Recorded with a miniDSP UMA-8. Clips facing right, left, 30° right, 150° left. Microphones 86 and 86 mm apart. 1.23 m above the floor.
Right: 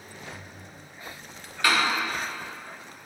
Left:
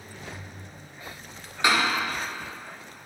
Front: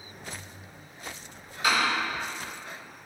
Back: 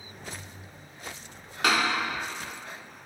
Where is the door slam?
160° left, 1.8 m.